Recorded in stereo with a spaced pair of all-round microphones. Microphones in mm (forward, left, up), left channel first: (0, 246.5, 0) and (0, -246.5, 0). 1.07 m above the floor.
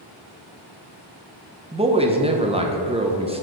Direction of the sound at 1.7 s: 10° right (ahead or behind).